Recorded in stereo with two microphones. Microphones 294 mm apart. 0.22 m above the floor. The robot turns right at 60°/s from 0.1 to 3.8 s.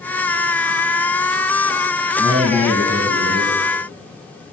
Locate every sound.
2.2 s a man speaking: 165° right, 1.5 m; by 3.5 s 85° right, 1.5 m